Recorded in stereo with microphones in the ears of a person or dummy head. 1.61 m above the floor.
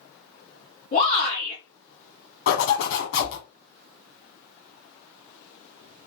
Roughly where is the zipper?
Left.